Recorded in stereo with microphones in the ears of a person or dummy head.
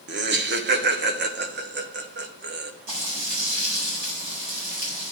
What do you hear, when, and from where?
0.1 s laughter: 50° right (ahead or behind), 1.2 m
2.9 s frying: 60° right (ahead or behind), 4 m